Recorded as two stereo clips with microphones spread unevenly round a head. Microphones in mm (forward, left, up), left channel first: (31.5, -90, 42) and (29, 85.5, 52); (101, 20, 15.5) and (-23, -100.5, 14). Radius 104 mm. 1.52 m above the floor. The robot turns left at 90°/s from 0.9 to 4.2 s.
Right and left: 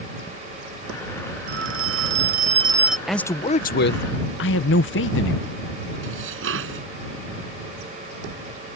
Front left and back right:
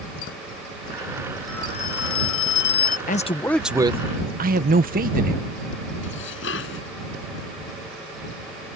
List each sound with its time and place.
1.5 s a phone ringing: 135° left; by 3.0 s straight ahead
3.1 s a man speaking: 5° left; by 5.5 s 100° right
6.0 s dishes clattering: 85° left